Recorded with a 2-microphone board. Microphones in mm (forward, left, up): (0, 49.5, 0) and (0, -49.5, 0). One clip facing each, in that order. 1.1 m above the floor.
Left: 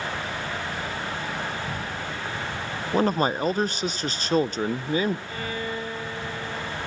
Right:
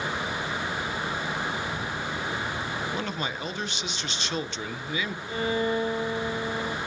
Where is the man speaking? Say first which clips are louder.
Left 9 dB; 40° left (ahead or behind), 0.6 m.